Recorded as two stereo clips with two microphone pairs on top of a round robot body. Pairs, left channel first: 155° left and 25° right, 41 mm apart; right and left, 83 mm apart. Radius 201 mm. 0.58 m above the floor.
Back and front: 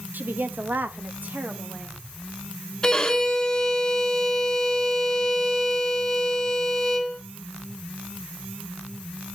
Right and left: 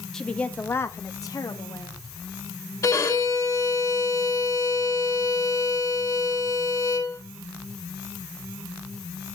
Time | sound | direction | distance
0.1 | a woman speaking | 10° right | 1.2 m
2.8 | a violin | 135° right | 1.8 m